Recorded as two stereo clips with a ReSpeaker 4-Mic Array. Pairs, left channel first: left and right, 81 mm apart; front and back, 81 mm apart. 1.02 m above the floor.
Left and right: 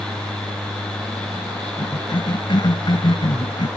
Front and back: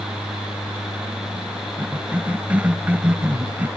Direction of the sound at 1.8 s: 110° left.